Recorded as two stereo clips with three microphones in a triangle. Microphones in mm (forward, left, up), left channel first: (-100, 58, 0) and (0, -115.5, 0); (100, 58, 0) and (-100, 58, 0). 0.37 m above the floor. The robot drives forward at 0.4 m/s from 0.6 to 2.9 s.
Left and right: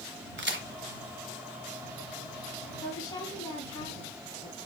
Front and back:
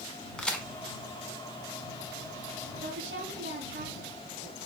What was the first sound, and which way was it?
A crack, 85° right.